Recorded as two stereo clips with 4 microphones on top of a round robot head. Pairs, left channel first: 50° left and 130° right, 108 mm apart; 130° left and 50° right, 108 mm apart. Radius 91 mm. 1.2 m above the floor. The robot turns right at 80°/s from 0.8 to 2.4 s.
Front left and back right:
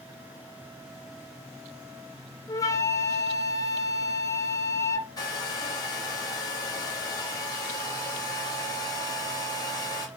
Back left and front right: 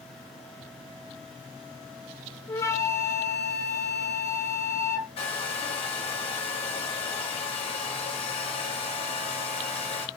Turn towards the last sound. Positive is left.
turn(degrees=105)